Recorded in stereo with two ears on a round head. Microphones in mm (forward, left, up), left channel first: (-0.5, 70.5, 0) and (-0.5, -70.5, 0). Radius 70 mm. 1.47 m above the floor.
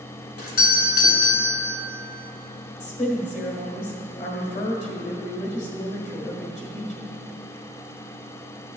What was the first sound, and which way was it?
A doorbell, 60° left (ahead or behind).